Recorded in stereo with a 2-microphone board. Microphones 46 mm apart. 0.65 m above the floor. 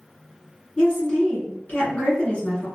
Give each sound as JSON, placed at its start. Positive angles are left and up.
{"t": 0.8, "sound": "a woman speaking", "side_deg": 30, "distance_m": 1.7}